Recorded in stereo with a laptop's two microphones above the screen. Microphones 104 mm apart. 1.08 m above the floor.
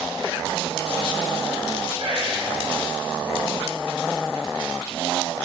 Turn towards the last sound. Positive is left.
turn(degrees=-65)  # may be behind; listen again after turning